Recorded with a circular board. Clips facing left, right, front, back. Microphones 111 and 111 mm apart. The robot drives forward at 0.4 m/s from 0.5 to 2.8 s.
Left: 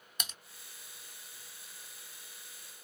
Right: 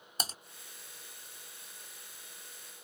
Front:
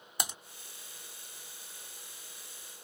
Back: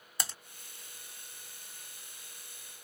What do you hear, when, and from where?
0.2 s typing on a keyboard: 65° right